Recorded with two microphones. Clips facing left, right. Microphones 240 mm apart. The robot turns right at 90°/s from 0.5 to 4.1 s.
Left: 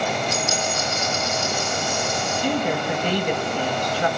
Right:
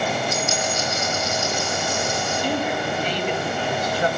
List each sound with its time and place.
0.3 s a dropped coin: 35° left, 8.5 m; by 2.4 s 150° right, 8.5 m
2.4 s a woman speaking: 55° left, 5 m; by 4.1 s 155° right, 5 m